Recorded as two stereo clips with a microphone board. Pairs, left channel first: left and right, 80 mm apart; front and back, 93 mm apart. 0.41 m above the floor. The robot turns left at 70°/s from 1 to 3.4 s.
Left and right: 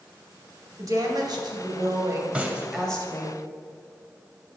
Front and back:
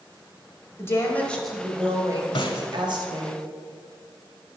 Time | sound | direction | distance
0.8 | a woman speaking | 55° right | 1.9 m
2.4 | a snare drum | 10° right | 1.0 m